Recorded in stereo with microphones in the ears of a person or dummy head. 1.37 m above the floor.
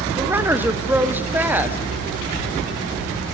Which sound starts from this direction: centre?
A woman speaking, at 0.2 s.